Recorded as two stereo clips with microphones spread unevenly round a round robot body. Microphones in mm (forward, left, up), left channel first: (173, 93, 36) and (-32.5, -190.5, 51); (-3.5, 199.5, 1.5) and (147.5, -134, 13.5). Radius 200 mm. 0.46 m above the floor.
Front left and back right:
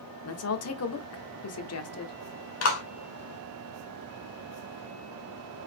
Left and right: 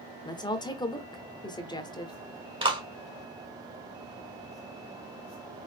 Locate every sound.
0.2 s a woman speaking: 40° left, 1.1 m
2.6 s a clap: 10° left, 2 m